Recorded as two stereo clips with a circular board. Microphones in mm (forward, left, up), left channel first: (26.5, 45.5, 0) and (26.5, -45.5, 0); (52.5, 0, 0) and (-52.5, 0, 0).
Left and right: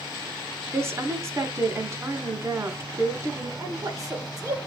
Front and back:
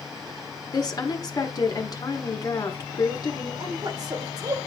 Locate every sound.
0.7 s a woman speaking: 40° right, 1.4 m
3.6 s a woman speaking: 135° right, 1.6 m